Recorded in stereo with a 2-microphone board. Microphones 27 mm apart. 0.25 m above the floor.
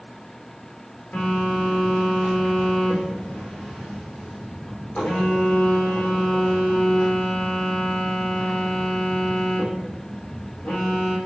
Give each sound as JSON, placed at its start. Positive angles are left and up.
{"t": 1.1, "sound": "a phone buzzing", "side_deg": 40, "distance_m": 3.5}